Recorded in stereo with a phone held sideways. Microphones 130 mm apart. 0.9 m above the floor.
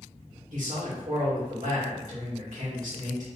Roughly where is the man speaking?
Right.